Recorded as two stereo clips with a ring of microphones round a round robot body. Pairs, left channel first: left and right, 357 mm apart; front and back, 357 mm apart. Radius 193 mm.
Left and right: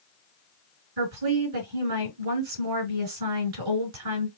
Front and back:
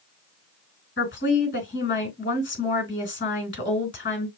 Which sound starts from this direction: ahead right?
A woman speaking, at 1.0 s.